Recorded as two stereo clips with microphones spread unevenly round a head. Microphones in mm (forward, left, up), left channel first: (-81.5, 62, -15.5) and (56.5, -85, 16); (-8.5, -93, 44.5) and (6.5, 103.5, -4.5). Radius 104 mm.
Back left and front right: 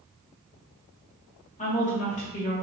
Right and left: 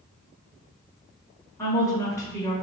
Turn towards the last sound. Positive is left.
turn(degrees=-170)